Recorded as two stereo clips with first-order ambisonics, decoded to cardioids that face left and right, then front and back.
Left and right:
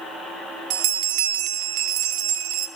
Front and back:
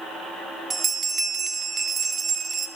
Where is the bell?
105° right, 0.5 m.